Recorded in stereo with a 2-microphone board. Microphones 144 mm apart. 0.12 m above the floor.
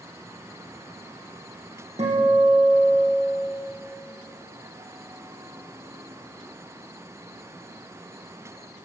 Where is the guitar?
50° right (ahead or behind), 3.5 m.